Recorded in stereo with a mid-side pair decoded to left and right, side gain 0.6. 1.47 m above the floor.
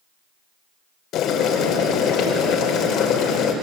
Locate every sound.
1.1 s boiling: 60° left, 4.5 m